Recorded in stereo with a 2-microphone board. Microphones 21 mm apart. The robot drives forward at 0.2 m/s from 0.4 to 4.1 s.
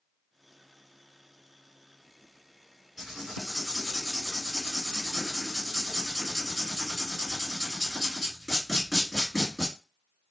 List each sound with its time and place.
3.0 s writing: 20° right (ahead or behind), 1.9 m